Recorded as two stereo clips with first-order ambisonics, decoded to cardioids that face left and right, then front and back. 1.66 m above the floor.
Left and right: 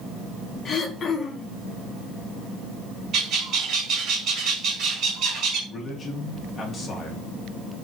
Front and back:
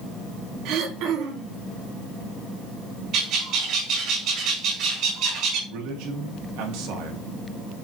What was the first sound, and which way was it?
Throat clearing, 155° left.